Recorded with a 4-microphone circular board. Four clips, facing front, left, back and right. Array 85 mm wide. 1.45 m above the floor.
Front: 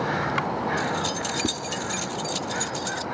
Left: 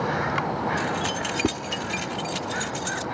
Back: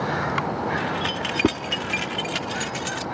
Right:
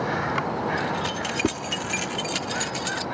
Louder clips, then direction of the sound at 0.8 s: Even, back 1 dB; 170° left.